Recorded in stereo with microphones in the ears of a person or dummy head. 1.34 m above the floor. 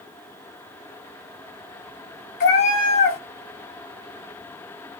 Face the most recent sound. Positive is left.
turn(degrees=40)  # may be behind; listen again after turning